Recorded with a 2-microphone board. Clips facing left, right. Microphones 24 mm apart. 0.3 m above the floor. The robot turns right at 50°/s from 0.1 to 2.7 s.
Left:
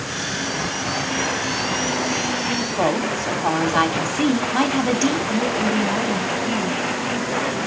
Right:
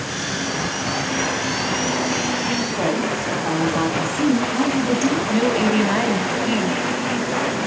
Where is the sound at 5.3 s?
25° right (ahead or behind), 2 m.